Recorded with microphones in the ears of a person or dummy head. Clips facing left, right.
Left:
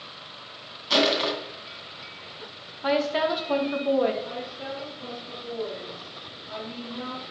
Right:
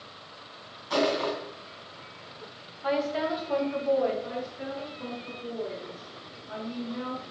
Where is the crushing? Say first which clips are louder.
Left 2 dB; 55° left (ahead or behind), 2.5 m.